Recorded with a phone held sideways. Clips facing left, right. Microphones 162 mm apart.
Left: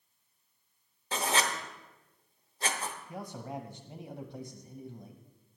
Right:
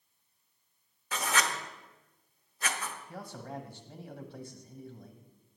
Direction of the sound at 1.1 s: 25° left (ahead or behind).